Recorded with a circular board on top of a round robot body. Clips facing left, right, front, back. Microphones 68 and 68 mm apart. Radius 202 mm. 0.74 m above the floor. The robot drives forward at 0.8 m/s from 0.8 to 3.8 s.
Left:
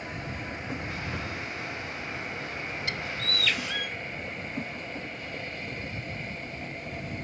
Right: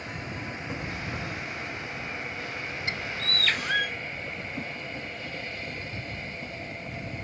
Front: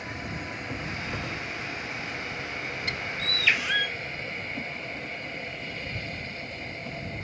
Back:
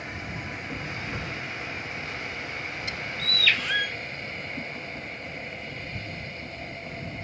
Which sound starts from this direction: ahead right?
A bird, at 2.9 s.